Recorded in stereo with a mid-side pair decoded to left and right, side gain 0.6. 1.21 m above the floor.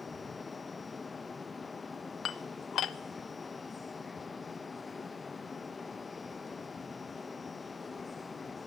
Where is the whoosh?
I don't hear a whoosh.